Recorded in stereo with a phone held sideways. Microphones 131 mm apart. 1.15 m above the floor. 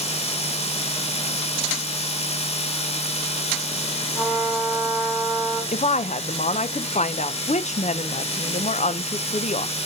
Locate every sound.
0.0 s a machine running: 55° left (ahead or behind), 1.3 m
4.1 s a trumpet: 15° left (ahead or behind), 5 m
5.7 s a woman speaking: 70° left (ahead or behind), 0.6 m